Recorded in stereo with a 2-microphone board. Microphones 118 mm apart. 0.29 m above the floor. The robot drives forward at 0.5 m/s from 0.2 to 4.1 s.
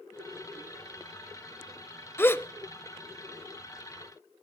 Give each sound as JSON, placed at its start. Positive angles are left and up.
{"t": 2.2, "sound": "a gasp", "side_deg": 20, "distance_m": 0.7}